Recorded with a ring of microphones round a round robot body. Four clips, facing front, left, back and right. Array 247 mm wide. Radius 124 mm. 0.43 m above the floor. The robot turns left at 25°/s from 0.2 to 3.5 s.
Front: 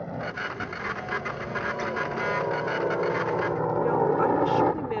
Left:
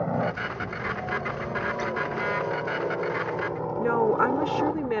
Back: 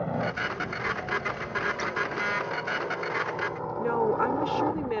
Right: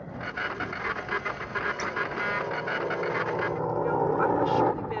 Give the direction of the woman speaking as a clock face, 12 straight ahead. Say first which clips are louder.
Left 4 dB, front 1 dB; 9 o'clock.